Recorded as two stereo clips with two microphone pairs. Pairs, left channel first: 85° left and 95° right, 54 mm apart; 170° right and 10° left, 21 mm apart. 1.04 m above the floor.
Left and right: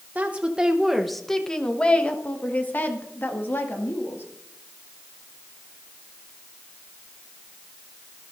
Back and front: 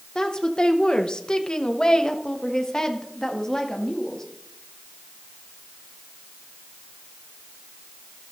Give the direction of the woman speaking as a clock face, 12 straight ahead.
5 o'clock.